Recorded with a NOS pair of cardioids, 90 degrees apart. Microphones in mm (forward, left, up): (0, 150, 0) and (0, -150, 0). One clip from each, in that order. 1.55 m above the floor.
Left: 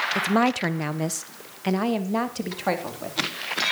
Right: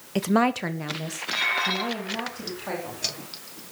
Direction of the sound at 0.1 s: 25° right.